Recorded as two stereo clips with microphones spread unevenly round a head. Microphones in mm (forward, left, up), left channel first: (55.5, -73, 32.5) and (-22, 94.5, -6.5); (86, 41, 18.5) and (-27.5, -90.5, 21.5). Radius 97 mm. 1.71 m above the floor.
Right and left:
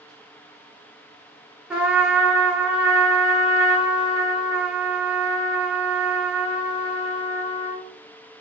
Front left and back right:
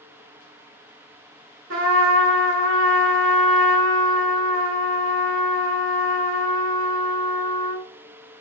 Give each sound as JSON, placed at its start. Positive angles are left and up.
{"t": 1.7, "sound": "a trumpet", "azimuth_deg": -160, "distance_m": 0.5}